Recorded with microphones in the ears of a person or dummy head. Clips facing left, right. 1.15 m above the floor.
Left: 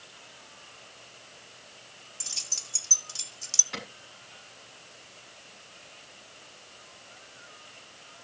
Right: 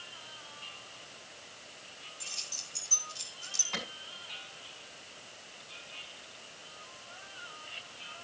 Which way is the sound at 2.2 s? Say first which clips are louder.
Left 1 dB; 80° left.